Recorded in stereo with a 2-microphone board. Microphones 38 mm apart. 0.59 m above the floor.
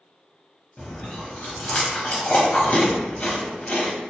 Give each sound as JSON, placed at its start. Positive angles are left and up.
{"t": 0.8, "sound": "chewing", "side_deg": 50, "distance_m": 0.7}